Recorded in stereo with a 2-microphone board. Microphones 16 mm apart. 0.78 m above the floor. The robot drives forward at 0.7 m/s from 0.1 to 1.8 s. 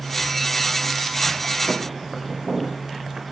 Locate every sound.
1.7 s footsteps: 40° right (ahead or behind), 2.0 m; by 3.2 s 75° right (ahead or behind), 3 m